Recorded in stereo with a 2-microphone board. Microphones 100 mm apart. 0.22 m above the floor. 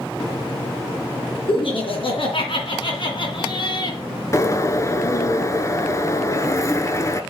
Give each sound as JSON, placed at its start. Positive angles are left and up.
{"t": 1.5, "sound": "laughter", "side_deg": 65, "distance_m": 3.5}
{"t": 4.3, "sound": "a bird", "side_deg": 30, "distance_m": 0.9}